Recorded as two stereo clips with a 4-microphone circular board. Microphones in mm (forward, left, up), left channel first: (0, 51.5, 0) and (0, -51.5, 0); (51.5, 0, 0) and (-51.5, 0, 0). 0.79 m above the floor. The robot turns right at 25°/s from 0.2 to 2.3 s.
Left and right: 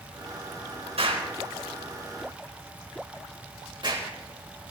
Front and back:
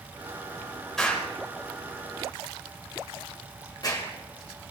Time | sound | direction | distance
1.0 | an explosion | 85° right | 3.5 m